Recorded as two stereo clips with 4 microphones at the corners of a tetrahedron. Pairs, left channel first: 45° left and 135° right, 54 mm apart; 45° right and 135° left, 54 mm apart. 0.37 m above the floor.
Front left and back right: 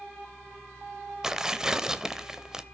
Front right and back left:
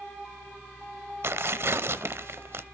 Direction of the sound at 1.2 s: 150° left.